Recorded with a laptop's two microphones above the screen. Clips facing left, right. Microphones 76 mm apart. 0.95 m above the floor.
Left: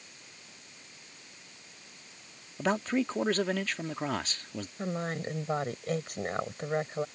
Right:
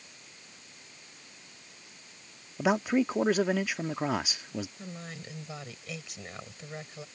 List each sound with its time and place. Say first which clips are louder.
2.6 s a man speaking: right 3 dB; 10° right (ahead or behind)
4.8 s a woman speaking: left 9 dB; 45° left (ahead or behind)